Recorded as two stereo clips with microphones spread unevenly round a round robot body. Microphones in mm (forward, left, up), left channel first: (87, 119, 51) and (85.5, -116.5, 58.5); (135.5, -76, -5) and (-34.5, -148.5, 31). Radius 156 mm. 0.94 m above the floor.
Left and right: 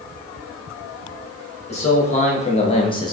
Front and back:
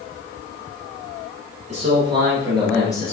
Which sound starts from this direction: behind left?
A man speaking, at 1.7 s.